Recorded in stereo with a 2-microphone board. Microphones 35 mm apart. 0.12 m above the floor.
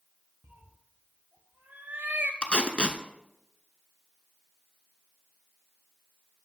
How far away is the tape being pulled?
About 0.6 m.